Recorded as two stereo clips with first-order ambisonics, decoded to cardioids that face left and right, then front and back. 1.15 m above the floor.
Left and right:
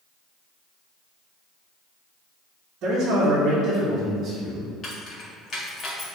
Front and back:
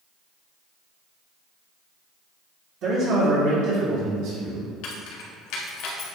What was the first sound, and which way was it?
A man speaking, 135° right.